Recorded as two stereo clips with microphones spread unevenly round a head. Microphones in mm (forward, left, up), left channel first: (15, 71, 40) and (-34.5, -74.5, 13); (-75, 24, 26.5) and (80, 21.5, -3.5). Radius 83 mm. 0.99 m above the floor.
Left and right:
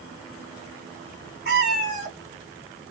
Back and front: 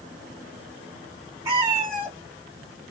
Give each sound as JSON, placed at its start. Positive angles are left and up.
{"t": 1.4, "sound": "a cat meowing", "azimuth_deg": -80, "distance_m": 1.3}